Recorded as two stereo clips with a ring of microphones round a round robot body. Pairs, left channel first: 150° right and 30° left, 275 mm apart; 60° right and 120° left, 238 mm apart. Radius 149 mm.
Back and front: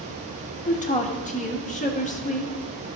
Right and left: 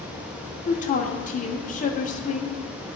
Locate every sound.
0.7 s a woman speaking: 100° right, 0.9 m